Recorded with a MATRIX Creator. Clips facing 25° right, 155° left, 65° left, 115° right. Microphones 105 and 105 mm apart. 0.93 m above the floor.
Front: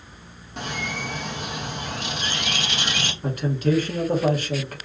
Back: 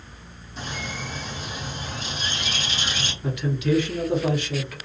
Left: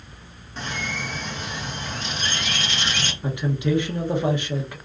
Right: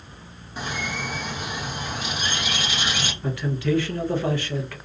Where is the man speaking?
5° left, 0.9 m.